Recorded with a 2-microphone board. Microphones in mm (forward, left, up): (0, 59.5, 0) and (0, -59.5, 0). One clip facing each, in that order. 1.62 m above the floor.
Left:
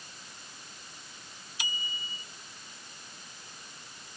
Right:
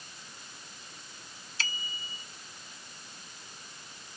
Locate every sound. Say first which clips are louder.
1.6 s a bicycle bell: even; 15° left (ahead or behind)